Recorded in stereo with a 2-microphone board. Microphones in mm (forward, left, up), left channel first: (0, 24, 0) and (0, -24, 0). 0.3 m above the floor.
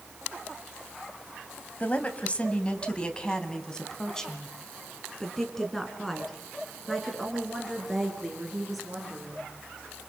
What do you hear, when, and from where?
1.8 s a woman speaking: 35° left (ahead or behind), 1.8 m; by 9.5 s centre (ahead or behind), 6 m